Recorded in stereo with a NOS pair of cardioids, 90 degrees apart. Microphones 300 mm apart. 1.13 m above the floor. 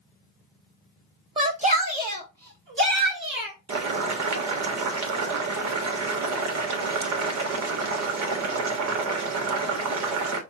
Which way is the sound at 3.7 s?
60° right.